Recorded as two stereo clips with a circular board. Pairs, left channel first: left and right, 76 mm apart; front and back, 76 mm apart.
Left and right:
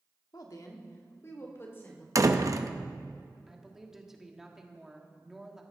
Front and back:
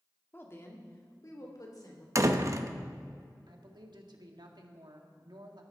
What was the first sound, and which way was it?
A woman speaking, 60° left.